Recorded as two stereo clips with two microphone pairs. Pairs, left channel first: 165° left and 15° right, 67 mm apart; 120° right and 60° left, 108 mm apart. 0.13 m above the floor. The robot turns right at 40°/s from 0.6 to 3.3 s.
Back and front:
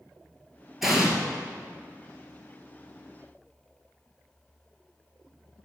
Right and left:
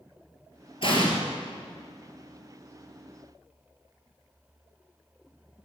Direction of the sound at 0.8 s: 100° right.